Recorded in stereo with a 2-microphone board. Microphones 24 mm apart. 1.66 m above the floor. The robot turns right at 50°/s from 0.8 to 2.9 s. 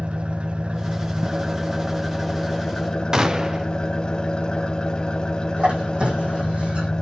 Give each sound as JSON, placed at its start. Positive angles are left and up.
{"t": 0.0, "sound": "an engine running", "azimuth_deg": -70, "distance_m": 1.0}
{"t": 3.1, "sound": "a gunshot", "side_deg": -25, "distance_m": 0.8}
{"t": 5.6, "sound": "a squeak", "side_deg": -55, "distance_m": 4.0}